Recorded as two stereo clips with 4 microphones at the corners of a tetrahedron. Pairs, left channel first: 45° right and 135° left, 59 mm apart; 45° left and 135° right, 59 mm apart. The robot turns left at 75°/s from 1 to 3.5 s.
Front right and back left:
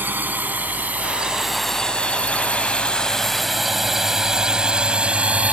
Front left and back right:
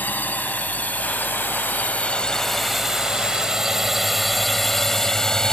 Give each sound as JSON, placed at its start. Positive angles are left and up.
{"t": 0.0, "sound": "a drone", "azimuth_deg": 90}